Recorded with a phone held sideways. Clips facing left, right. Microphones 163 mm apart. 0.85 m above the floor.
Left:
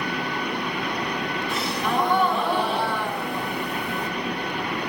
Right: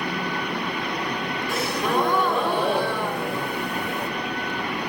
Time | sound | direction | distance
1.5 | a gasp | 80° right | 2 m